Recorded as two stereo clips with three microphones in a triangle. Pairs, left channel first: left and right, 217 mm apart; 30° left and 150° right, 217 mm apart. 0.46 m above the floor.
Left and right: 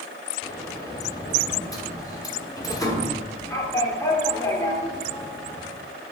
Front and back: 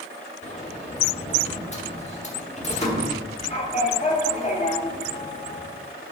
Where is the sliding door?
30° left, 1.0 m.